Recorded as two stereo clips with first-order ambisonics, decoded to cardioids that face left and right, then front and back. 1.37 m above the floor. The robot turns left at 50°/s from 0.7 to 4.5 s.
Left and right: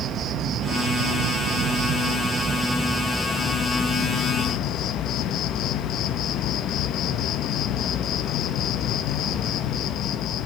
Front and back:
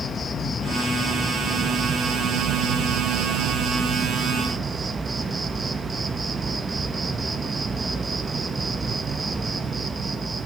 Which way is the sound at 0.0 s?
60° right.